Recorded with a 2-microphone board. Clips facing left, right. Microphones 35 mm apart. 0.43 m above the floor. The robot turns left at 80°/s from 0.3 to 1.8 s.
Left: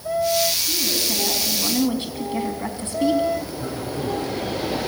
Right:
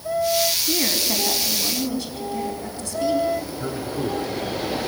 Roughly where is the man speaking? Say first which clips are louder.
Right 1 dB; right.